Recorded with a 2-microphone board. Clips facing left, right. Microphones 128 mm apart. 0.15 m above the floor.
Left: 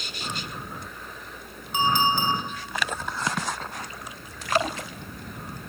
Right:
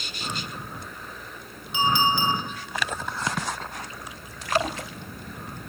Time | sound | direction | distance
1.7 | a clink | 50° left (ahead or behind) | 1.2 m